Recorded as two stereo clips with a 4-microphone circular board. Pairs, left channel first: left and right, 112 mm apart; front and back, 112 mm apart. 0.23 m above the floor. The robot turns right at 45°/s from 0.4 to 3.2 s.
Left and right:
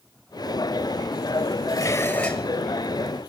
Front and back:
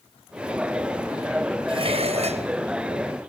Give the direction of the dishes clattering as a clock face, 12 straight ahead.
7 o'clock.